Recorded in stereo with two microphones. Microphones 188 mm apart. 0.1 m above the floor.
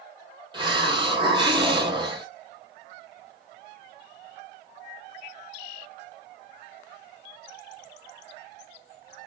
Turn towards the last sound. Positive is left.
turn(degrees=-25)  # may be behind; listen again after turning